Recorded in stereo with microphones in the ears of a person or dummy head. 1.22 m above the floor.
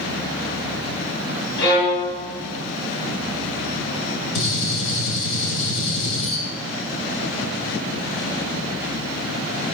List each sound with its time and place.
1.6 s a violin: 70° left (ahead or behind), 3.5 m
4.3 s a gunshot: 70° left (ahead or behind), 2 m